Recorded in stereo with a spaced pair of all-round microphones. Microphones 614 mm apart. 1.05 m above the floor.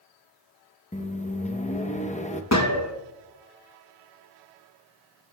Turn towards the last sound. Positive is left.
turn(degrees=25)  # may be behind; listen again after turning